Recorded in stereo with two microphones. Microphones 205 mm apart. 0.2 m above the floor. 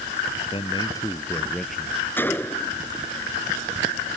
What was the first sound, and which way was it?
A man speaking, 25° left (ahead or behind).